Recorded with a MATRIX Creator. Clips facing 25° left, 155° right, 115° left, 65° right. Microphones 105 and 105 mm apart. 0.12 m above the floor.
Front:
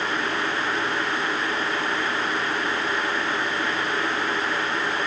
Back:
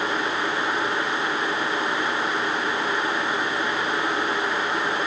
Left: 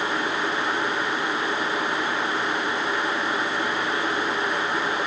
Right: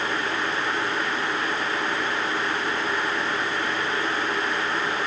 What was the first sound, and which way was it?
Only background noise.